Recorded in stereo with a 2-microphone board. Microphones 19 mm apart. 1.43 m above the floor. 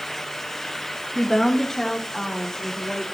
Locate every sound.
1.1 s a woman speaking: 25° left (ahead or behind), 1.7 m; by 3.0 s 45° left (ahead or behind), 3 m